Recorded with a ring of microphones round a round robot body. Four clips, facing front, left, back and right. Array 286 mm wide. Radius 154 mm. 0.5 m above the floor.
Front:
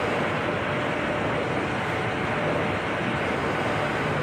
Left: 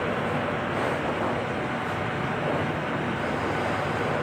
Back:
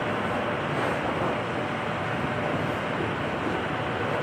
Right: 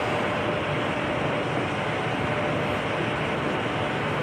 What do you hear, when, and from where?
Only background noise.